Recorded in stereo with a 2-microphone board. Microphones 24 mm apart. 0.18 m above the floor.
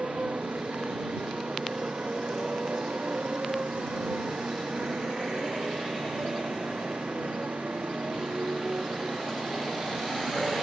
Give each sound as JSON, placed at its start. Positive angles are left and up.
{"t": 0.0, "sound": "a motorcycle", "side_deg": -65}